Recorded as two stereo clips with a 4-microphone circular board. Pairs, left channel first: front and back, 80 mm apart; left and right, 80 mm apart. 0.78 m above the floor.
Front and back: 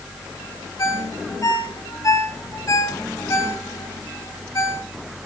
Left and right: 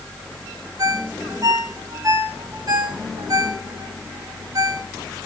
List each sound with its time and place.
0.8 s a ringtone: 50° right, 1.6 m